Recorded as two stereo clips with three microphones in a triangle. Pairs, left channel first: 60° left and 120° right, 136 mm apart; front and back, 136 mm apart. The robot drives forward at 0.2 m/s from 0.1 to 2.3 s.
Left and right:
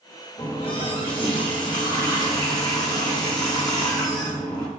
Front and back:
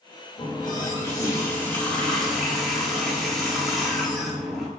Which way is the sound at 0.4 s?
40° left.